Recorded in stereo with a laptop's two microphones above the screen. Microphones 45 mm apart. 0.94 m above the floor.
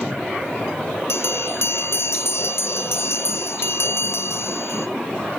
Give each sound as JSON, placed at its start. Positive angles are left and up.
{"t": 1.1, "sound": "a bell", "side_deg": 70, "distance_m": 0.5}